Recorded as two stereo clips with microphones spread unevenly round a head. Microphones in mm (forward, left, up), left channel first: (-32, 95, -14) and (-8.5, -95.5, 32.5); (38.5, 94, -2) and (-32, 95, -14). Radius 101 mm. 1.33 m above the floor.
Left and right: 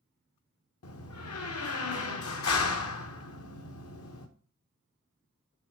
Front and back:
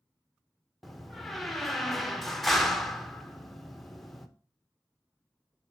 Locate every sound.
0.8 s a door slam: 85° left, 1.1 m